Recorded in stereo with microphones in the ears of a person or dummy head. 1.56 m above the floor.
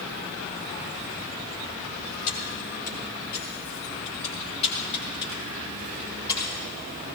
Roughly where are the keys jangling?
Left.